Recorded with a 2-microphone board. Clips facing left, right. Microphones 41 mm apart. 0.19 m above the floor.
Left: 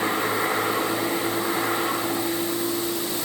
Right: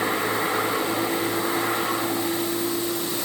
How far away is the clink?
I don't hear a clink.